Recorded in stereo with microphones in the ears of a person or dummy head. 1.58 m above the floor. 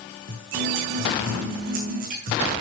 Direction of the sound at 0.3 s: 50° right (ahead or behind).